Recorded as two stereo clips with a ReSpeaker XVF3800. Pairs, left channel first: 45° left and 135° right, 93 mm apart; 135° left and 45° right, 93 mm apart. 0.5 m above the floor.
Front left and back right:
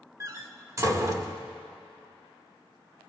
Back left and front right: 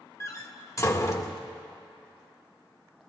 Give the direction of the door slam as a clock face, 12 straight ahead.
6 o'clock.